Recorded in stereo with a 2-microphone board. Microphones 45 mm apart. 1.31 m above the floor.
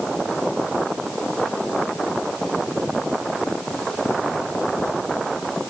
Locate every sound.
Only background noise.